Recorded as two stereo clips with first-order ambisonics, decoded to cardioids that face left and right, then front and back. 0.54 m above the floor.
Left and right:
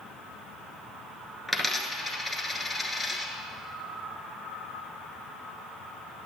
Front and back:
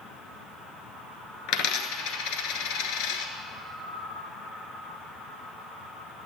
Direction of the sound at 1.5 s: 5° left.